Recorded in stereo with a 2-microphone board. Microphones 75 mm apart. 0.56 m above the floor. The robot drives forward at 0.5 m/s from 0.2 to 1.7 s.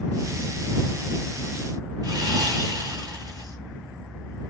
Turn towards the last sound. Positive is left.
turn(degrees=-55)  # may be behind; listen again after turning